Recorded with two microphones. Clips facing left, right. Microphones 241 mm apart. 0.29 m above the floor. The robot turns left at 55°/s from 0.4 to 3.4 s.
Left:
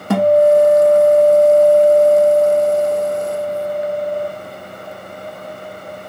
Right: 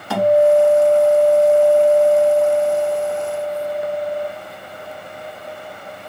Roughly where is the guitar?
Behind left.